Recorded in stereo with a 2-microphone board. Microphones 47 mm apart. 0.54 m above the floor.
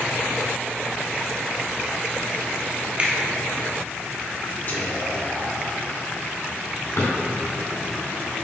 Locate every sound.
3.0 s a finger snap: 30° right (ahead or behind), 1.2 m
4.7 s whispering: 40° left (ahead or behind), 1.6 m
7.0 s a drawer: 75° left (ahead or behind), 2 m